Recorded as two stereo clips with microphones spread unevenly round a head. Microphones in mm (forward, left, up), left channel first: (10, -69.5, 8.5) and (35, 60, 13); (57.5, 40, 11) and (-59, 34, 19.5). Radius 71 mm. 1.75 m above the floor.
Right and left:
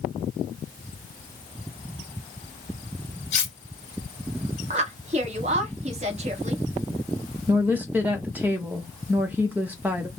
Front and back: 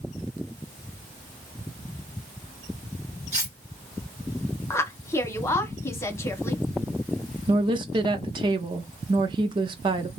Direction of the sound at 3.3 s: 110° right.